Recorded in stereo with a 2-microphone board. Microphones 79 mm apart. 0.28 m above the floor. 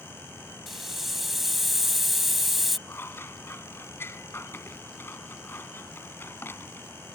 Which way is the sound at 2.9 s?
30° left (ahead or behind).